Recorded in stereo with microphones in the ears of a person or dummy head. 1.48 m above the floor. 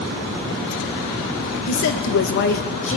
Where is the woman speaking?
70° left (ahead or behind), 1.2 m; by 3.0 s 30° left (ahead or behind), 0.8 m.